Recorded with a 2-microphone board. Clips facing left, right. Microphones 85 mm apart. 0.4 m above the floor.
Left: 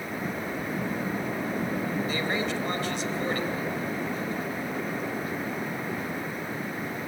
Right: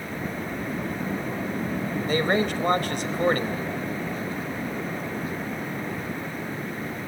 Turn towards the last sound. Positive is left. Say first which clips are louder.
# right 5 dB
turn(degrees=-55)  # may be behind; listen again after turning